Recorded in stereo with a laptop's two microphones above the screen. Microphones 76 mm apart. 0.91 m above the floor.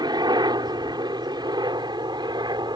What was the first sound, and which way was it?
A helicopter, 60° right (ahead or behind).